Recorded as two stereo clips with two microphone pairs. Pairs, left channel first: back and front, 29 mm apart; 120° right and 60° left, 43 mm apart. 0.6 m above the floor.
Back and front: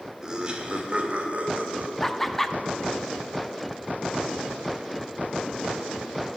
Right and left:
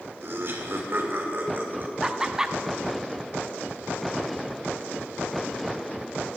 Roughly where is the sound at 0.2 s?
Ahead left.